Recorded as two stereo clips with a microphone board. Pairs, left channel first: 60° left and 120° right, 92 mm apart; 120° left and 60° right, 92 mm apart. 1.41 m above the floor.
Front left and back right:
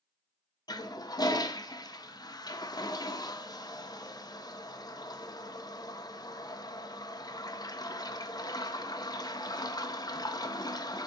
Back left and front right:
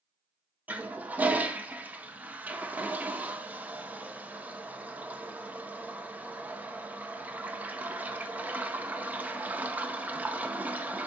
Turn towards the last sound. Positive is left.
turn(degrees=15)